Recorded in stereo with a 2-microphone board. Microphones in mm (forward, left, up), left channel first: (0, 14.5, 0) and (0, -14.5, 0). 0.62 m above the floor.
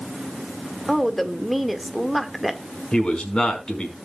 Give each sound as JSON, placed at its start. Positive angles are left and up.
{"t": 0.9, "sound": "a woman speaking", "side_deg": 0, "distance_m": 1.7}
{"t": 2.9, "sound": "a man speaking", "side_deg": 30, "distance_m": 5.0}